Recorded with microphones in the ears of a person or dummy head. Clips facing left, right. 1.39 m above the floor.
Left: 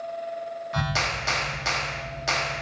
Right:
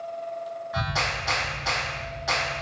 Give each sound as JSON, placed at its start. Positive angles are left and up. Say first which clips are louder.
{"t": 0.7, "sound": "a clap", "louder": "left 1 dB", "side_deg": 40, "distance_m": 0.8}